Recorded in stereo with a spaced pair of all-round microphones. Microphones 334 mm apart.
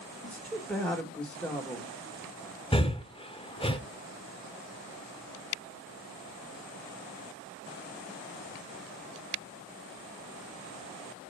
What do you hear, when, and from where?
0.2 s a woman speaking: 5° left (ahead or behind), 2 m
2.7 s breathing: 15° left (ahead or behind), 0.8 m